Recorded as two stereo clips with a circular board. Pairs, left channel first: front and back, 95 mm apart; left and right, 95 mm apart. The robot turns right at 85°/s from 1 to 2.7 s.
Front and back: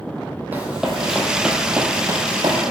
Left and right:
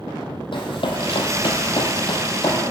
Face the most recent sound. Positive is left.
turn(degrees=155)